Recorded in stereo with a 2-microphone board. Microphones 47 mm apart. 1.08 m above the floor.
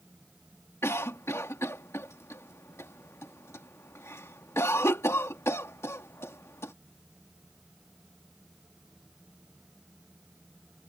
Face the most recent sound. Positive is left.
turn(degrees=75)  # may be behind; listen again after turning